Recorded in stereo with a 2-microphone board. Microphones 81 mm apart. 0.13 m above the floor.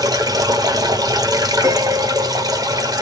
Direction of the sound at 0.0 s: 60° right (ahead or behind).